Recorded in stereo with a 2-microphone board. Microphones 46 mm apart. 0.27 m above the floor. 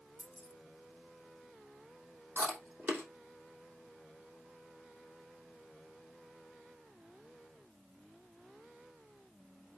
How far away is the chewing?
About 3 m.